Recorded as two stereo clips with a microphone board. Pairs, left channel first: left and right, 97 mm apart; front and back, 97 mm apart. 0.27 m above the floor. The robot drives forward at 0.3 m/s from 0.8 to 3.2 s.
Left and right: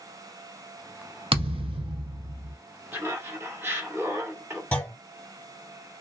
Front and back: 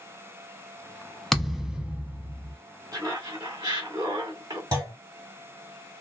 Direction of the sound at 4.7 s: 155° left.